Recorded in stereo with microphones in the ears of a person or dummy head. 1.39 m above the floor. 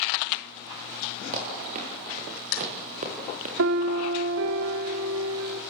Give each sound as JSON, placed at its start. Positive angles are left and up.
{"t": 1.3, "sound": "running footsteps", "side_deg": -40, "distance_m": 6.5}
{"t": 3.6, "sound": "a piano", "side_deg": -65, "distance_m": 1.6}